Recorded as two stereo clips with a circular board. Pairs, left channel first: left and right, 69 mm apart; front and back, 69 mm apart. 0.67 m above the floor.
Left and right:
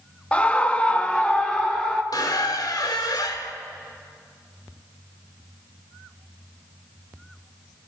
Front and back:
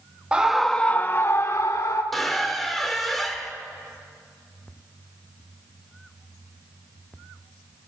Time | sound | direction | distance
0.3 | a scream | 130° left | 0.8 m
2.1 | a squeak | 85° left | 1.4 m